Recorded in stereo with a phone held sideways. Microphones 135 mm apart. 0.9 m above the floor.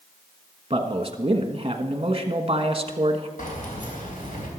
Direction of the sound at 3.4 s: 80° left.